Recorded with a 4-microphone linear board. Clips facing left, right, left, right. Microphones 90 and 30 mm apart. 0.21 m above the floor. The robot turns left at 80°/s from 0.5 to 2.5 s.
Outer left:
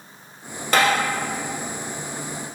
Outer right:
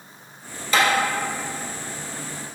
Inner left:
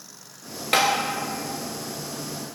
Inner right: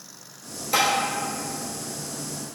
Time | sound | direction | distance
0.7 | tapping | 60° left (ahead or behind) | 0.5 m